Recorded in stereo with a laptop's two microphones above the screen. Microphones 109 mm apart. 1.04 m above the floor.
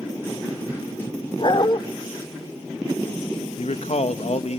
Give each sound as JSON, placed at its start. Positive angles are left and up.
{"t": 1.4, "sound": "a dog barking", "side_deg": 50, "distance_m": 0.9}
{"t": 3.6, "sound": "a man speaking", "side_deg": 75, "distance_m": 1.1}